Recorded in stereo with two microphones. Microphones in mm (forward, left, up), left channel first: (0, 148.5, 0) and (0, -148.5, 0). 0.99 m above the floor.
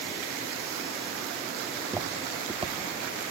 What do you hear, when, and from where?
1.7 s footsteps: 5° right (ahead or behind), 2 m; by 3.2 s 30° right (ahead or behind), 1.5 m